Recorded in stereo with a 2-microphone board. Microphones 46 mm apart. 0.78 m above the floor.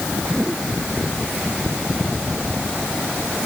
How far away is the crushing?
I don't hear crushing.